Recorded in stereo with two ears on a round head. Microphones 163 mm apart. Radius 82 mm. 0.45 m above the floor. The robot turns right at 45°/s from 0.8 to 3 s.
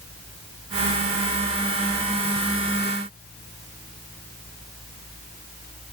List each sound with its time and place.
Only background noise.